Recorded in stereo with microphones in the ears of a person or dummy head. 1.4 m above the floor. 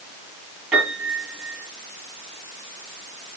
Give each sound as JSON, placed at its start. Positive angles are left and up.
{"t": 0.7, "sound": "a piano", "side_deg": -10, "distance_m": 8.5}